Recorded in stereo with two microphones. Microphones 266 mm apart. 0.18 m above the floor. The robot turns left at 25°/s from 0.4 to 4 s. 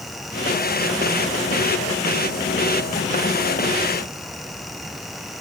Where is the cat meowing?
I don't hear a cat meowing.